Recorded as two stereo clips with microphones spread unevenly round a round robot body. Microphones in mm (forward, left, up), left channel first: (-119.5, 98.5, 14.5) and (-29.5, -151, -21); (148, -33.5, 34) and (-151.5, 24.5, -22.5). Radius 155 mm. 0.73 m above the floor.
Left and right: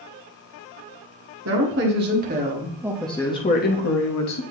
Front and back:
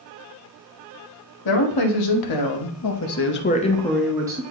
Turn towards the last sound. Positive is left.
turn(degrees=105)